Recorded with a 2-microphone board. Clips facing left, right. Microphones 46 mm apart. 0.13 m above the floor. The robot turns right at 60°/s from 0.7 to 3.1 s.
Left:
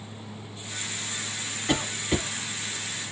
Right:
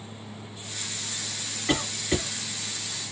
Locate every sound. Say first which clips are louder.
1.7 s a cough: even; 5° right (ahead or behind), 2.0 m; by 2.3 s 20° left (ahead or behind), 2.0 m